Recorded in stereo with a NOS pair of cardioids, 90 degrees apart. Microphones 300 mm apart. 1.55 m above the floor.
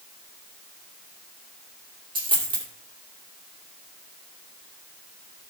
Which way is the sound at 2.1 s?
15° right.